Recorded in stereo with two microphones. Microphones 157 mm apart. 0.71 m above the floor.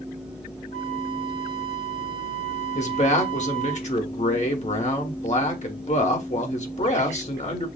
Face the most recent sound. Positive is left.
turn(degrees=45)  # may be behind; listen again after turning